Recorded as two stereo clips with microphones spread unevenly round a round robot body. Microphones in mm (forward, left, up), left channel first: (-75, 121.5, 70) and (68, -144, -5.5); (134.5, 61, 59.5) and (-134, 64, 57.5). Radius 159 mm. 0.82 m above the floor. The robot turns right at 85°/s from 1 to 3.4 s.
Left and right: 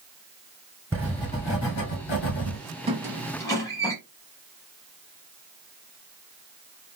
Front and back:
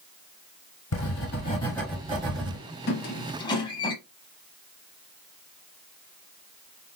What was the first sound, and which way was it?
Writing, 20° left.